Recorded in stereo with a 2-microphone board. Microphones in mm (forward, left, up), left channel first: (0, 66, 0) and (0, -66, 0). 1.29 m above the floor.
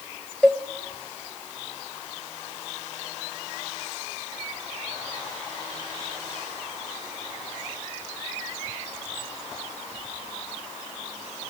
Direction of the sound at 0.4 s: 10° left (ahead or behind).